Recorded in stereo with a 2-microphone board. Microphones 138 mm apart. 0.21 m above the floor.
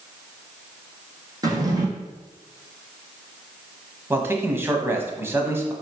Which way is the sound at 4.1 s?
15° right (ahead or behind).